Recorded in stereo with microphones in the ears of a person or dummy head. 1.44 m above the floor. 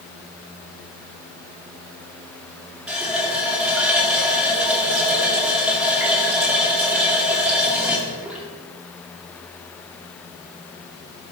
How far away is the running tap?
About 1.9 m.